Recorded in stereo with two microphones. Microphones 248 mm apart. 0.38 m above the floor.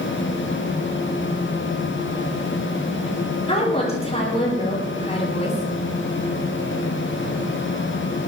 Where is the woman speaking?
25° left (ahead or behind), 7.5 m.